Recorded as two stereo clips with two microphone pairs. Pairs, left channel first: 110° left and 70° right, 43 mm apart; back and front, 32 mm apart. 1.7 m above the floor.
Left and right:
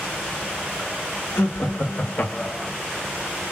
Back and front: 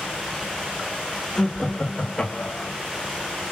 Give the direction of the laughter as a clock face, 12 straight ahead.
8 o'clock.